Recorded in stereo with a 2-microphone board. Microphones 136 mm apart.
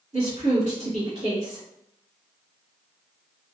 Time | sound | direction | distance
0.1 | a woman speaking | 55° right (ahead or behind) | 1.9 m